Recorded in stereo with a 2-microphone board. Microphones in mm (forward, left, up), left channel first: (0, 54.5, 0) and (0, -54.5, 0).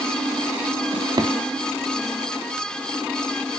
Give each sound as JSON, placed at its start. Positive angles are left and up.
{"t": 0.9, "sound": "a drawer", "side_deg": -45, "distance_m": 0.8}